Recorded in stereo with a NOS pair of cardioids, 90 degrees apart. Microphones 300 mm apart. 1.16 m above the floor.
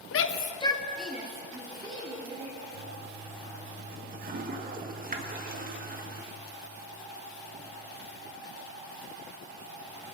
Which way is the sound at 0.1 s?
55° left.